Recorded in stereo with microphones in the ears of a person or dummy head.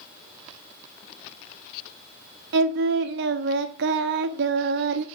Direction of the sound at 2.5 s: 70° right (ahead or behind).